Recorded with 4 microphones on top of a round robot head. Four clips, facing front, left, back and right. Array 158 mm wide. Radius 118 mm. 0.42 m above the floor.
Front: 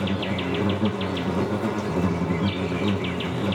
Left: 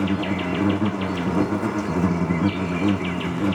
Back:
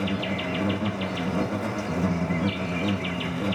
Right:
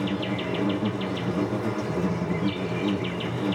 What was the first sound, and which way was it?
An insect, 70° left.